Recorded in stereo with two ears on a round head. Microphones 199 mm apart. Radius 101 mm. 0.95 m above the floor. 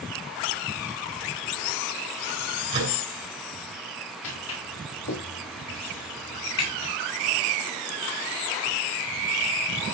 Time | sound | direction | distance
2.7 | a microwave | 25° right (ahead or behind) | 6.5 m
4.2 | footsteps | 70° left (ahead or behind) | 8 m